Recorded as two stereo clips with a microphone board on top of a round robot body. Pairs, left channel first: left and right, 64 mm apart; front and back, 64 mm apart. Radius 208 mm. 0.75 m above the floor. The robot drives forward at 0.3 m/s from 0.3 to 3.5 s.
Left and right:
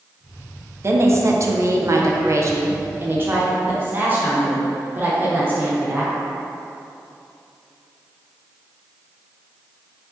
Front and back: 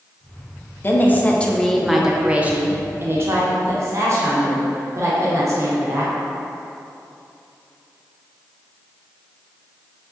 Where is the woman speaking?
50° right, 0.7 m; by 6.2 s 145° right, 0.8 m.